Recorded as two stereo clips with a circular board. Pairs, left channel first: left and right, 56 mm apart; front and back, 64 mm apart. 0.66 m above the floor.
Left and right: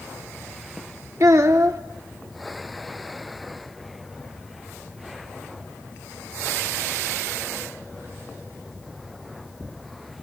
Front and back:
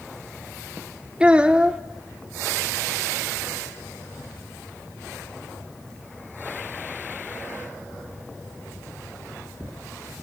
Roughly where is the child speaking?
Right.